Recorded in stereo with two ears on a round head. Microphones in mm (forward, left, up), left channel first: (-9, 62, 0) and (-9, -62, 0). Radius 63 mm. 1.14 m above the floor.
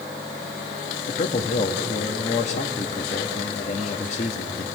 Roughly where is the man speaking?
Left.